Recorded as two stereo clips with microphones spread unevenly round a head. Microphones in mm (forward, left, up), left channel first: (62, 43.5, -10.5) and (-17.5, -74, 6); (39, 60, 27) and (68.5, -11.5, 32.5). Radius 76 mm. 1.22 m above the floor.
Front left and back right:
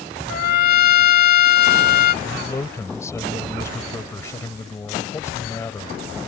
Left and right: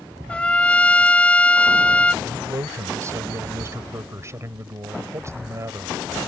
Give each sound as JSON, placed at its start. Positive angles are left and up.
{"t": 0.3, "sound": "a trumpet", "azimuth_deg": 40}
{"t": 2.2, "sound": "a man speaking", "azimuth_deg": -15}